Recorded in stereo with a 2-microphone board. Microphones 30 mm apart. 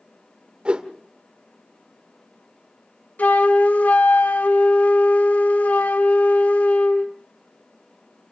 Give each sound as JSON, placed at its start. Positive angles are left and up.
{"t": 0.7, "sound": "a whoosh", "side_deg": -40, "distance_m": 1.5}
{"t": 3.2, "sound": "a flute", "side_deg": 75, "distance_m": 0.9}